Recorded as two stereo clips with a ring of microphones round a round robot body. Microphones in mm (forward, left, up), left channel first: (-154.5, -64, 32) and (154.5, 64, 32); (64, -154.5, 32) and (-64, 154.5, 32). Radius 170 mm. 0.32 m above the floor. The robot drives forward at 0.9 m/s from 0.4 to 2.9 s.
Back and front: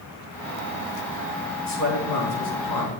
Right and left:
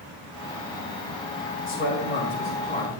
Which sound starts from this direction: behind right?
A man speaking, at 1.7 s.